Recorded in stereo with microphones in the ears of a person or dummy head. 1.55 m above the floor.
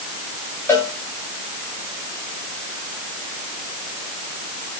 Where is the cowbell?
15° left (ahead or behind), 5 m.